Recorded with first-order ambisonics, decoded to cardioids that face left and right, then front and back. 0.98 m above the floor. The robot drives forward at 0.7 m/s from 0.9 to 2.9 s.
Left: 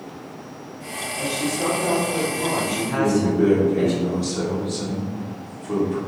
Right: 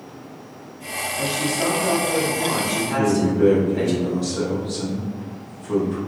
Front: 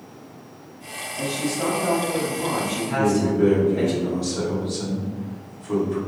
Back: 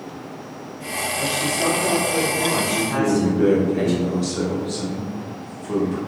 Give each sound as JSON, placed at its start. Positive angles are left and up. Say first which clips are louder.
{"t": 1.2, "sound": "a man speaking", "louder": "right 1 dB, back 2 dB", "azimuth_deg": -45, "distance_m": 1.4}
{"t": 3.0, "sound": "a man speaking", "louder": "even, front 2 dB", "azimuth_deg": -170, "distance_m": 0.7}